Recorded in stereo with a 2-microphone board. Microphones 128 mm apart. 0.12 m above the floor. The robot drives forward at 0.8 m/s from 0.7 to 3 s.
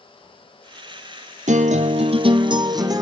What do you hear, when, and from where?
1.5 s a guitar: 75° right (ahead or behind), 0.7 m; by 3.0 s 30° right (ahead or behind), 1.4 m